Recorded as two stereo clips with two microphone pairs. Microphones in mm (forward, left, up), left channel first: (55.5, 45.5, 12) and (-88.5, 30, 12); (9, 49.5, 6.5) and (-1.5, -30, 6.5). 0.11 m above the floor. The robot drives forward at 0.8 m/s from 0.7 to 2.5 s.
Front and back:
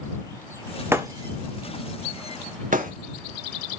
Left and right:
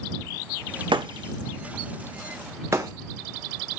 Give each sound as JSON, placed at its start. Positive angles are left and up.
{"t": 0.9, "sound": "breaking glass", "azimuth_deg": -100, "distance_m": 0.8}